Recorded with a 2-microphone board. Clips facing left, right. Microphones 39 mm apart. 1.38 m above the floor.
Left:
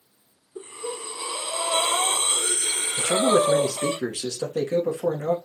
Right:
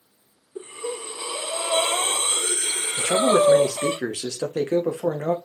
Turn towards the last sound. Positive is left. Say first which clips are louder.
# right 2 dB
turn(degrees=-40)  # may be behind; listen again after turning